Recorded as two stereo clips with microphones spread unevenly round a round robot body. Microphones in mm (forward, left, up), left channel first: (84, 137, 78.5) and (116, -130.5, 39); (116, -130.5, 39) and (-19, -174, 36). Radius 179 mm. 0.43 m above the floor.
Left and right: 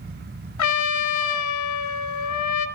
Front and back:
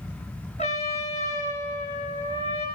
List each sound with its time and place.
0.6 s a trumpet: 85° left, 2 m